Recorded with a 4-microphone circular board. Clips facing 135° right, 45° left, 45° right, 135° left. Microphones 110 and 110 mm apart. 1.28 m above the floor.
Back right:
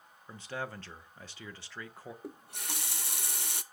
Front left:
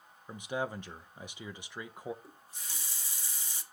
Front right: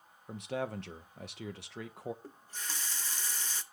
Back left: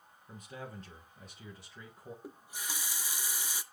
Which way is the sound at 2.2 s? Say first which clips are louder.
Back right 8 dB, back left 1 dB; 145° right.